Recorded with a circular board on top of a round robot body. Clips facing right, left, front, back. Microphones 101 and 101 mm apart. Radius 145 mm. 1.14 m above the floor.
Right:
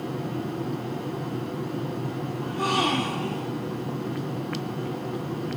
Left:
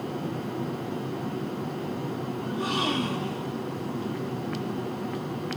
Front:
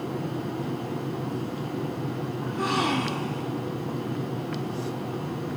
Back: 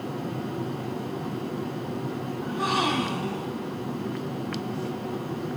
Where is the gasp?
95° right, 3 m.